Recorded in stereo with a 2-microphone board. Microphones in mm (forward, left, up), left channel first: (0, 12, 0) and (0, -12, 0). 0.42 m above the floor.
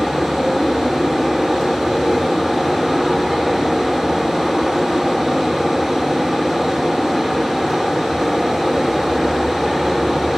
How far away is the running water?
About 1.3 m.